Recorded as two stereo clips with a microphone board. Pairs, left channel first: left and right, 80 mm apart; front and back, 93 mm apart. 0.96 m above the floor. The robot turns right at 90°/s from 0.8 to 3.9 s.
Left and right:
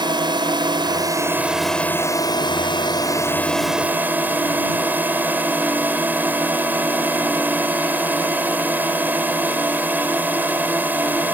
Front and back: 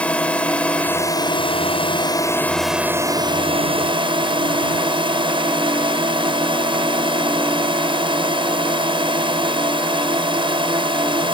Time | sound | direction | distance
0.0 | a drone | 75° right | ?